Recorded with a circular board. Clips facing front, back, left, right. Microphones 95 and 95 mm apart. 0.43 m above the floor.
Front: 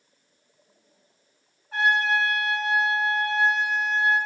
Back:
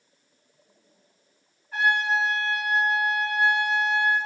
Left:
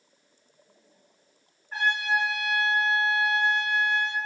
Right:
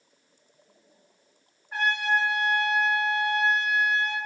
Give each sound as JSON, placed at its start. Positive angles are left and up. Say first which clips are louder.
{"t": 1.7, "sound": "a trumpet", "louder": "front 1 dB, right 1 dB", "azimuth_deg": -5, "distance_m": 1.8}